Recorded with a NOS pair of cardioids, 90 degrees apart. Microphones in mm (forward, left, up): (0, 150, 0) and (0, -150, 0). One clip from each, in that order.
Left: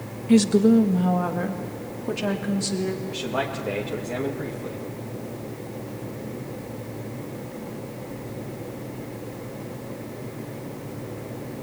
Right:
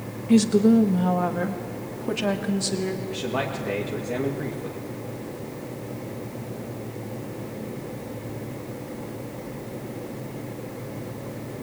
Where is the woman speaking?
15° left, 1.3 m; by 3.0 s 15° right, 3 m.